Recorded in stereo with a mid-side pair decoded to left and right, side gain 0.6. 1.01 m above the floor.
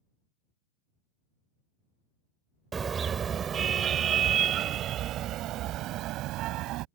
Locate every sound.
2.7 s a car horn: 30° right; by 6.8 s 70° right